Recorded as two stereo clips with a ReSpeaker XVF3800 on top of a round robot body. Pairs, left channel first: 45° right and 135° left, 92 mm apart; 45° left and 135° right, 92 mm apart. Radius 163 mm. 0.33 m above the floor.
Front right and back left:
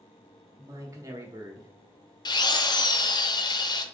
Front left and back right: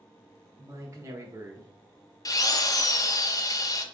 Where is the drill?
5° right, 0.6 m.